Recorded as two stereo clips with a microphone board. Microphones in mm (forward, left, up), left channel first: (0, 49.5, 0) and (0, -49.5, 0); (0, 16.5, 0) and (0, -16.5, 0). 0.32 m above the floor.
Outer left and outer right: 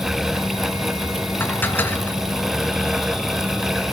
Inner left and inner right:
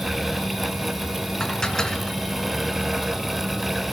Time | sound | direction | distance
1.4 | dishes clattering | 20° left (ahead or behind) | 2 m